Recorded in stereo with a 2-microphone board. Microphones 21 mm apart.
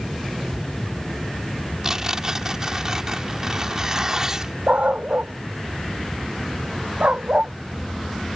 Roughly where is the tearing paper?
Right.